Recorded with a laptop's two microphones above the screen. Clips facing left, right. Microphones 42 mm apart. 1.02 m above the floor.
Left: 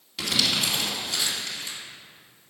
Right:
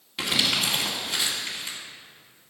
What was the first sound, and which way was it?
Crumpling, 25° right (ahead or behind).